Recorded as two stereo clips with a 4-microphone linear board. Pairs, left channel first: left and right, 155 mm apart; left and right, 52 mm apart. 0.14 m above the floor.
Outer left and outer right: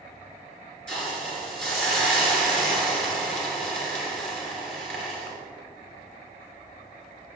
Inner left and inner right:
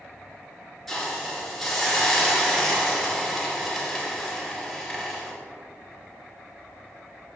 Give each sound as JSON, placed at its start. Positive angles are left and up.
{"t": 0.9, "sound": "a hiss", "side_deg": 5, "distance_m": 2.5}